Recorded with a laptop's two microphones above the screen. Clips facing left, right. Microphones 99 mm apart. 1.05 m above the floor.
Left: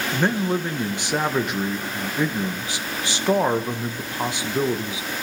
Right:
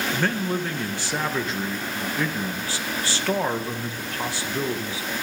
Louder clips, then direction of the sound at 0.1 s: Left 5 dB; 20° left (ahead or behind).